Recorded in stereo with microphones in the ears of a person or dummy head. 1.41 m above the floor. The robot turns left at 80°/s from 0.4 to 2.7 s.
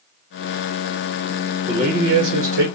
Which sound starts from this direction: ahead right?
A man speaking, at 1.7 s.